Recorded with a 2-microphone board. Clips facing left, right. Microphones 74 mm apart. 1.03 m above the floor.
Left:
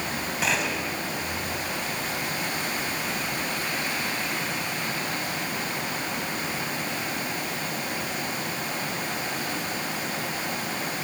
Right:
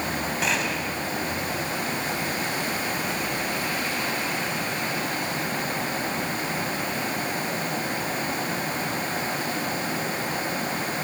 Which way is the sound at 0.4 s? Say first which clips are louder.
Left 1 dB; centre (ahead or behind).